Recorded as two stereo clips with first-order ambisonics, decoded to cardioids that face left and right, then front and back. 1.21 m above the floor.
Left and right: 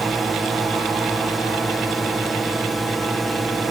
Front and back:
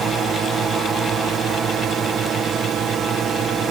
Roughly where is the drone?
Behind.